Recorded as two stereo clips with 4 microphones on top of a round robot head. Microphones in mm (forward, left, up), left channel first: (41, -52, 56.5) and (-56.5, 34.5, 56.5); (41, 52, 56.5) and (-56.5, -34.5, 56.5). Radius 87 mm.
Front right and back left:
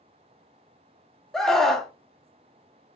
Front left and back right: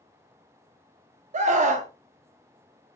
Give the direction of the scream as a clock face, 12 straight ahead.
4 o'clock.